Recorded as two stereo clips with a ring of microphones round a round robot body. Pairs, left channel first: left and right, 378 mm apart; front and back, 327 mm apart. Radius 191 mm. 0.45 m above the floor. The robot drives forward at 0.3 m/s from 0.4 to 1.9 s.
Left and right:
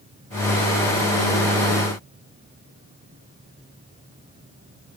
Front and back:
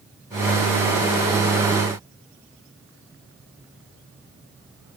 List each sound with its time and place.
Only background noise.